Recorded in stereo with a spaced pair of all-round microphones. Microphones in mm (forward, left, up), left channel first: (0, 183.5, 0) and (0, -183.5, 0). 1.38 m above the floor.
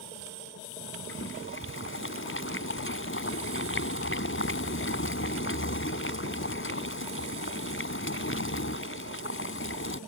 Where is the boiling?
35° left (ahead or behind).